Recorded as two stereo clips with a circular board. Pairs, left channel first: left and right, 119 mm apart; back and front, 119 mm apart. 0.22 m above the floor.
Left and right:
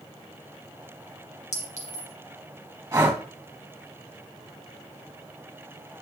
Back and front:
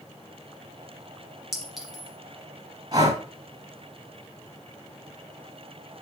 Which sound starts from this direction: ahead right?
Breathing, at 2.9 s.